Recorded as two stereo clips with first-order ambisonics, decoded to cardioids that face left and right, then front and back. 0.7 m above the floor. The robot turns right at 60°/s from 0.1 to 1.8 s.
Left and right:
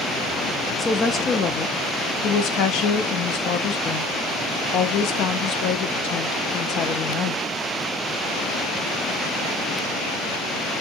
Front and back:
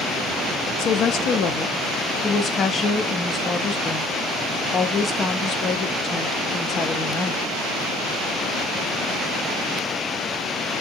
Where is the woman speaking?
5° left, 0.6 m; by 7.5 s 65° left, 0.6 m.